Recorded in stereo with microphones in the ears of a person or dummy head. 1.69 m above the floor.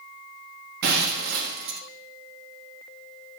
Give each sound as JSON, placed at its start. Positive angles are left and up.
{"t": 0.8, "sound": "breaking glass", "side_deg": -60, "distance_m": 1.6}